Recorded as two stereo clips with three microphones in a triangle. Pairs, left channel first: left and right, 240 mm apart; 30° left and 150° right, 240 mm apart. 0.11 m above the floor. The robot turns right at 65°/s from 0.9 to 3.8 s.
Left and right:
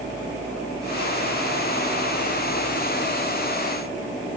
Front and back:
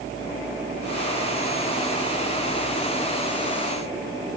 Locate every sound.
Only background noise.